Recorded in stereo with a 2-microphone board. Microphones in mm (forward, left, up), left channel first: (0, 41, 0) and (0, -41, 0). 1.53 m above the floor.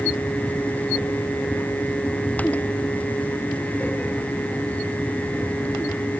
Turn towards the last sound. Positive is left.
No sound to turn to.